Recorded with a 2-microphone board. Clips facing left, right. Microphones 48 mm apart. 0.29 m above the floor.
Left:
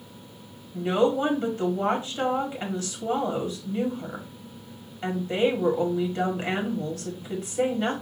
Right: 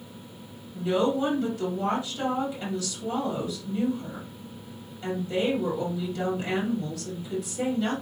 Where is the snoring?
I don't hear snoring.